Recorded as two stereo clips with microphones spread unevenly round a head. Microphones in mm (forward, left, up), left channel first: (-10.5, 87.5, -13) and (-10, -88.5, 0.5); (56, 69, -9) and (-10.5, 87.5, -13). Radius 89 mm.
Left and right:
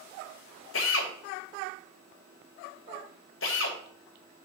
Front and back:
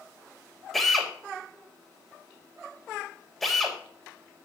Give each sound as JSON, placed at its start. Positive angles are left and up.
{"t": 0.7, "sound": "a drill", "azimuth_deg": 70, "distance_m": 3.5}